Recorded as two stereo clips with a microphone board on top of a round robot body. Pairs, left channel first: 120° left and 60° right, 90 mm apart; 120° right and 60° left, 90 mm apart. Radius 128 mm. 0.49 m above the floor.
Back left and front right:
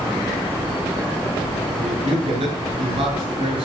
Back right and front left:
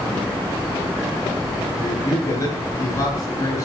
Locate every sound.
1.8 s a man speaking: 65° right, 9.5 m